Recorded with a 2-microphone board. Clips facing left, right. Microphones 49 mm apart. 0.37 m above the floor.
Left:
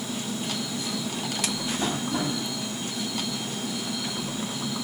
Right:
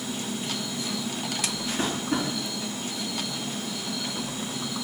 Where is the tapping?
70° right (ahead or behind), 2.5 m.